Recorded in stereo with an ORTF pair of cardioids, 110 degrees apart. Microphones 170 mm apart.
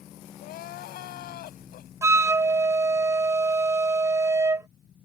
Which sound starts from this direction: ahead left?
Crying, at 0.4 s.